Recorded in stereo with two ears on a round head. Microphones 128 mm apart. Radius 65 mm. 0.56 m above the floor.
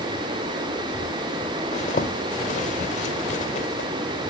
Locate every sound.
1.7 s a zipper: 50° left (ahead or behind), 1.7 m